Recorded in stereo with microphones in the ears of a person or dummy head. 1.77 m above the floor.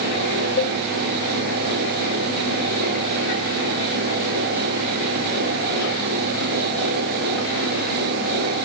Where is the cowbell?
55° left (ahead or behind).